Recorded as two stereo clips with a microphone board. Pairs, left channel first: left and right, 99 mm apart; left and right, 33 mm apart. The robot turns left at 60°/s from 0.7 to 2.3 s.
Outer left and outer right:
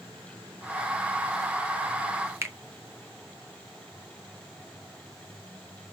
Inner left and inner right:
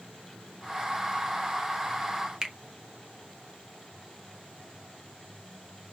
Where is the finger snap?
25° right (ahead or behind), 0.7 m.